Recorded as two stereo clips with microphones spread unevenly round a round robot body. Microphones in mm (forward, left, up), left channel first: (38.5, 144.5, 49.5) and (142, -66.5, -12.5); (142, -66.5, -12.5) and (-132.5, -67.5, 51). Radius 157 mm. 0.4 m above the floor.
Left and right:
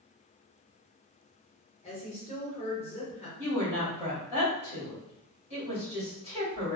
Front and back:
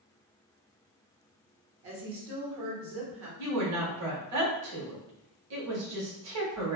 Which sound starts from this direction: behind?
A woman speaking, at 1.8 s.